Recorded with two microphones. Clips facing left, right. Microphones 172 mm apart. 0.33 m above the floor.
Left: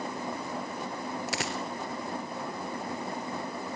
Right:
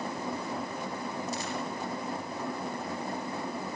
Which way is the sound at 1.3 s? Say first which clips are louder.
Even; 85° left.